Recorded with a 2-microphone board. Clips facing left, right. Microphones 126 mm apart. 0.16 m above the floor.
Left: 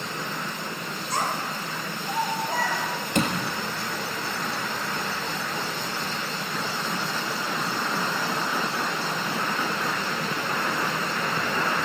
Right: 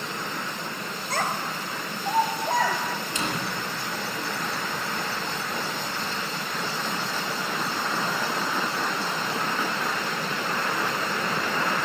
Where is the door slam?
60° left (ahead or behind), 2.5 m.